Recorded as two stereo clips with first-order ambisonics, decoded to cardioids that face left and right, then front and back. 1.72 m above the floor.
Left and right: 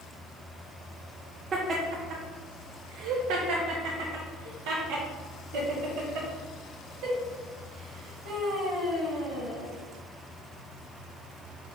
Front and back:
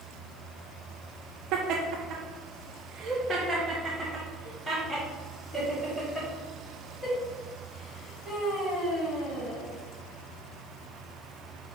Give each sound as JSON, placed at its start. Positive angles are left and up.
{"t": 1.5, "sound": "laughter", "azimuth_deg": -155, "distance_m": 1.1}